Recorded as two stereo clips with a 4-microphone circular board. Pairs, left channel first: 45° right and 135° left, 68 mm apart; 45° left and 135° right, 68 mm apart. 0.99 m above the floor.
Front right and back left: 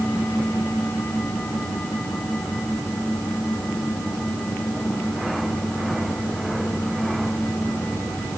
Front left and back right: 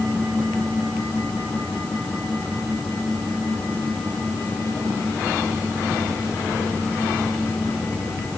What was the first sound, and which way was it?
Only background noise.